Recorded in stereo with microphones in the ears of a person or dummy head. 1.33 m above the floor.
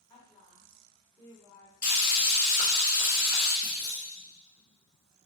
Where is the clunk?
60° left (ahead or behind), 1.5 m.